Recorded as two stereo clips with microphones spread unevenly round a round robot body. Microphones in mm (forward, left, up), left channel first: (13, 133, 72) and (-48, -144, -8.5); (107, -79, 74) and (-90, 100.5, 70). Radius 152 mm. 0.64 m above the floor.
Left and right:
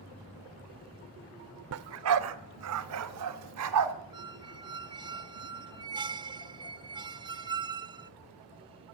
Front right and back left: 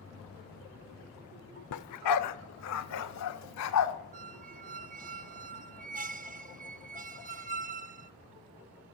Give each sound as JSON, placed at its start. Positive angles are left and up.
{"t": 1.7, "sound": "a dog barking", "azimuth_deg": -60, "distance_m": 0.7}
{"t": 4.1, "sound": "a squeak", "azimuth_deg": -165, "distance_m": 0.6}